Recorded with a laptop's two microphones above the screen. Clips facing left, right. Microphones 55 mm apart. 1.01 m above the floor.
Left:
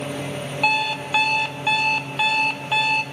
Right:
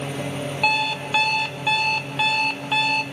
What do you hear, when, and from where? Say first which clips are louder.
0.6 s an alarm clock: left 1 dB; 5° left (ahead or behind), 1.0 m